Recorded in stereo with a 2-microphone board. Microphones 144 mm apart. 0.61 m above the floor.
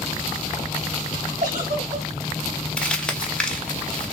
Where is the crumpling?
5° left (ahead or behind), 0.8 m.